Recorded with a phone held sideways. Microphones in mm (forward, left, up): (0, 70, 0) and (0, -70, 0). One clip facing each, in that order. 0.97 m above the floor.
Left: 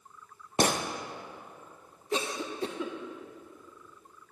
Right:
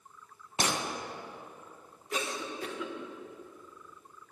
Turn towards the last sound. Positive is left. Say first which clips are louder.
# left 3 dB
turn(degrees=30)  # may be behind; listen again after turning